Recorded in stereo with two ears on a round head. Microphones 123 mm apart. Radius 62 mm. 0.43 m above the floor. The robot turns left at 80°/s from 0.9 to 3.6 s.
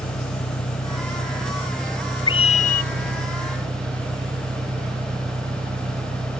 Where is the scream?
140° left; by 2.9 s 90° left.